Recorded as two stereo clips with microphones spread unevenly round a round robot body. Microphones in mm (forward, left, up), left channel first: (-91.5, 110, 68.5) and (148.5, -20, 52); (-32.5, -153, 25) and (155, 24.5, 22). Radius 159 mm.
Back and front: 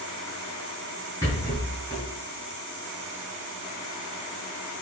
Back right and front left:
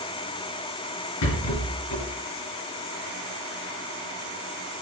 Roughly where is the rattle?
Behind right.